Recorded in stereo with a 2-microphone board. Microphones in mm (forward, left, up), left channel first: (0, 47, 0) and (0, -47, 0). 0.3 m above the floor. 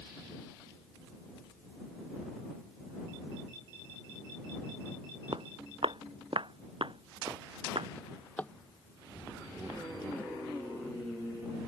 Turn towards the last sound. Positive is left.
turn(degrees=15)  # may be behind; listen again after turning